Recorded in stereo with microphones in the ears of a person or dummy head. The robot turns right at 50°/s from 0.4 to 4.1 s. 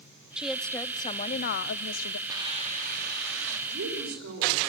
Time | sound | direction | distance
0.4 | a woman speaking | straight ahead | 0.6 m
2.3 | a hiss | 160° right | 2.5 m
3.7 | a woman speaking | 70° right (ahead or behind) | 6.5 m